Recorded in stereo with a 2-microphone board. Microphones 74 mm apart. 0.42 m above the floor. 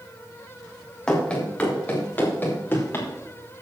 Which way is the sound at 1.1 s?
10° left (ahead or behind).